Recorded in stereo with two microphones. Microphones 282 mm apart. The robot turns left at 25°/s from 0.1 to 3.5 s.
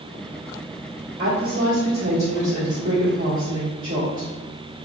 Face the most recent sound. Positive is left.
turn(degrees=-95)